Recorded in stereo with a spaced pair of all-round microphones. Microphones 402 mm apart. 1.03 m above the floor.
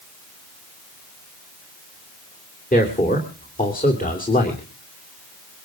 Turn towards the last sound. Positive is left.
turn(degrees=20)  # may be behind; listen again after turning